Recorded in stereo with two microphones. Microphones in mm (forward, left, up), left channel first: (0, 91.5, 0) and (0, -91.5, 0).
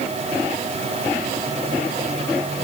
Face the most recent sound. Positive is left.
No sound to turn to.